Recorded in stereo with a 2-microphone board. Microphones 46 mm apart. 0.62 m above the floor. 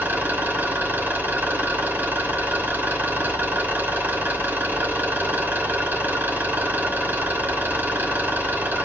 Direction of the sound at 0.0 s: 45° right (ahead or behind).